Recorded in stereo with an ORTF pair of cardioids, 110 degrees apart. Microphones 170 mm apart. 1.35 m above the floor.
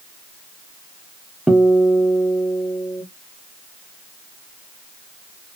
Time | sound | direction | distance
1.5 | a guitar | 5° right | 0.6 m